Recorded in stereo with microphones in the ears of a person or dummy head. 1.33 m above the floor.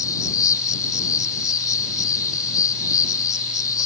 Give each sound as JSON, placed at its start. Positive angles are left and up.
{"t": 0.0, "sound": "an insect", "side_deg": 15}